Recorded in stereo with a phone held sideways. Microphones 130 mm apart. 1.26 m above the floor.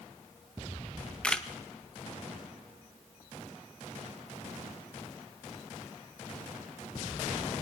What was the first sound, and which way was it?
A camera shutter, 5° left (ahead or behind).